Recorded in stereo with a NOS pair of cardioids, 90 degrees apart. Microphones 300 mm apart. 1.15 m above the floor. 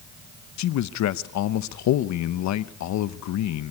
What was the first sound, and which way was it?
A man speaking, 65° left.